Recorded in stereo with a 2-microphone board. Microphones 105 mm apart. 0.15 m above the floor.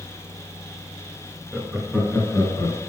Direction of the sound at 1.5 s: 5° right (ahead or behind).